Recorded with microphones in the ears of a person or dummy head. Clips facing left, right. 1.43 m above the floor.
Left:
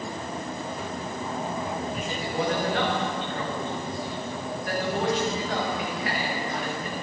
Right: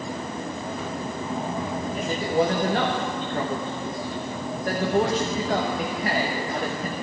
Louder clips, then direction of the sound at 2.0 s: Right 10 dB; 40° right (ahead or behind).